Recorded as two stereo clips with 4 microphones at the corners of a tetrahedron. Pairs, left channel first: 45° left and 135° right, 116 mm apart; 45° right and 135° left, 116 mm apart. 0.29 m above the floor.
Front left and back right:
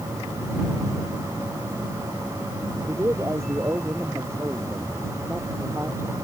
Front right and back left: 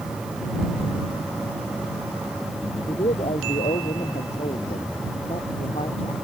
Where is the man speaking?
70° right.